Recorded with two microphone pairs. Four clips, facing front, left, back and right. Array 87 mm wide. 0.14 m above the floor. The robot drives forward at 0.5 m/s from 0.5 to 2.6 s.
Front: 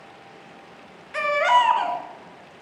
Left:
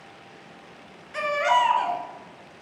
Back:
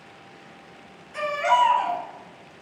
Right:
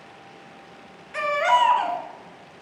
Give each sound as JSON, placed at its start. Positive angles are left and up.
{"t": 1.1, "sound": "a baby crying", "azimuth_deg": -15, "distance_m": 1.0}